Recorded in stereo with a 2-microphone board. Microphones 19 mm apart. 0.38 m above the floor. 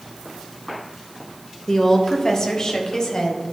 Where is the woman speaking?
20° left (ahead or behind), 0.9 m; by 3.4 s 35° left (ahead or behind), 1.8 m.